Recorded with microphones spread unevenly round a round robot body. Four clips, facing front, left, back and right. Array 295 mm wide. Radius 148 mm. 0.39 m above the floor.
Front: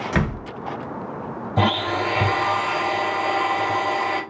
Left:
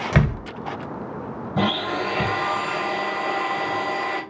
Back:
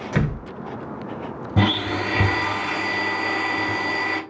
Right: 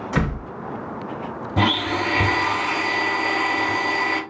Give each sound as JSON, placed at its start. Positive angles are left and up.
{"t": 0.1, "sound": "a door slam", "azimuth_deg": 95, "distance_m": 1.5}
{"t": 1.6, "sound": "a blender", "azimuth_deg": -165, "distance_m": 1.2}